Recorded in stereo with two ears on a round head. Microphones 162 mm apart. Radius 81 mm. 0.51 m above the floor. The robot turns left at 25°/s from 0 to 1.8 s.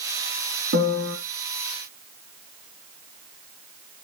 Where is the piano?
65° right (ahead or behind), 4 m; by 1.2 s 75° right (ahead or behind), 4 m.